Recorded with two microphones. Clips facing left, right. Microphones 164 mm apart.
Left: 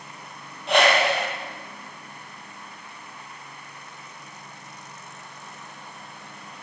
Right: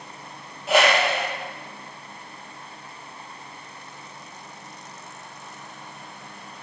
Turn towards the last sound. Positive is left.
turn(degrees=-5)  # may be behind; listen again after turning